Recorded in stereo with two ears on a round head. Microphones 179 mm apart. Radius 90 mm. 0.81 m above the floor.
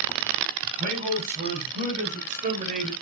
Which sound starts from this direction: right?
A man speaking, at 0.6 s.